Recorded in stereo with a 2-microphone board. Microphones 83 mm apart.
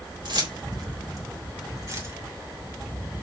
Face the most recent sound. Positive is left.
turn(degrees=-40)  # may be behind; listen again after turning